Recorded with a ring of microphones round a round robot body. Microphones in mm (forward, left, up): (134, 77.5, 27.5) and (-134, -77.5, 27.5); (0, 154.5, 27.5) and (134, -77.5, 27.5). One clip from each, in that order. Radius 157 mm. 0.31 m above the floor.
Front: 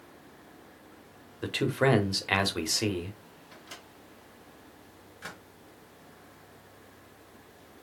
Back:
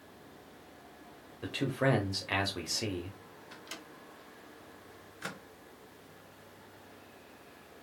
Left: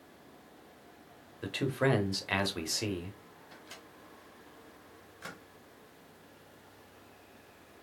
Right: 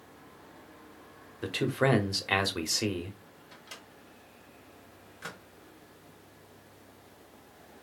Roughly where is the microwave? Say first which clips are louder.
Back 1 dB, right 3 dB; behind right.